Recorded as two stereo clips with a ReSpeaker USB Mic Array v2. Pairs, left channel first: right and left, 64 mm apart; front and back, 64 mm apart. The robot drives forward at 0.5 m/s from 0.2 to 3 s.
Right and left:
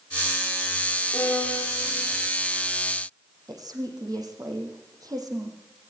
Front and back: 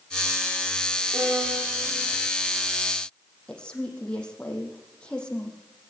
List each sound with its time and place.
1.1 s a violin: 135° right, 7 m
3.5 s a woman speaking: 75° left, 5.5 m